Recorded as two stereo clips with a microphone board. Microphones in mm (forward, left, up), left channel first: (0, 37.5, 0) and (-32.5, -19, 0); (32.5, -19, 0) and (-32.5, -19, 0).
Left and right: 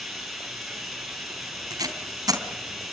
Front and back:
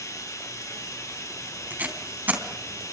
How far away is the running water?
About 5.5 m.